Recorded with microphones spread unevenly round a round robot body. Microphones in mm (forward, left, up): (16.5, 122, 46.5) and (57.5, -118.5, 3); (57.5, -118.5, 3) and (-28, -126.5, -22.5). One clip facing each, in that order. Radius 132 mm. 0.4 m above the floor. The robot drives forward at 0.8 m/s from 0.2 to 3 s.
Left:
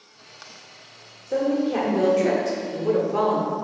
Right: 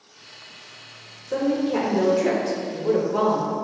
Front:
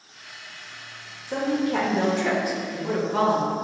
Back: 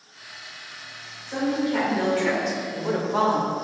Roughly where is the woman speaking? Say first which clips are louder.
Even, even; ahead.